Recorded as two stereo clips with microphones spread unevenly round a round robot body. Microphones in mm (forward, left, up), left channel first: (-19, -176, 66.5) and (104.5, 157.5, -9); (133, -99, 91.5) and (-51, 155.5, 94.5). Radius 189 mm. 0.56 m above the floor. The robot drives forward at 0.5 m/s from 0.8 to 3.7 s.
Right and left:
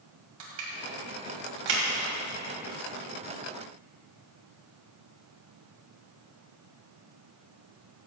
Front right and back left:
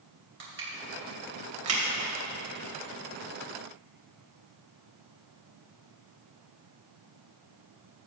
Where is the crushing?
70° left, 2.5 m; by 2.1 s 85° left, 2.5 m.